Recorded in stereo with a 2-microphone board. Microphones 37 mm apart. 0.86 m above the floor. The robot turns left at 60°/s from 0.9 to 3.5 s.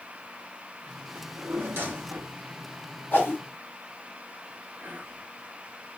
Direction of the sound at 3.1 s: 70° left (ahead or behind).